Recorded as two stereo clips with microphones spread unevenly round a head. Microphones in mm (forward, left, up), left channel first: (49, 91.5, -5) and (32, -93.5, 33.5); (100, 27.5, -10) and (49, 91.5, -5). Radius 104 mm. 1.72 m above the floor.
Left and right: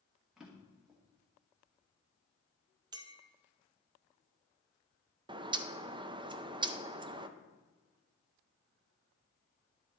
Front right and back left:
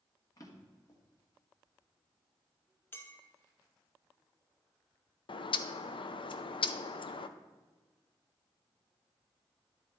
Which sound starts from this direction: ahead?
A drawer, at 0.4 s.